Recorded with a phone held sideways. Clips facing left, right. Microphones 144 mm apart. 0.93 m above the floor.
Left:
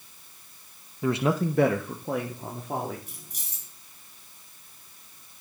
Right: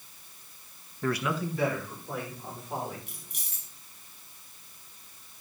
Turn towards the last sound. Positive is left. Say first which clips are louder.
# left 1 dB
turn(degrees=35)  # may be behind; listen again after turning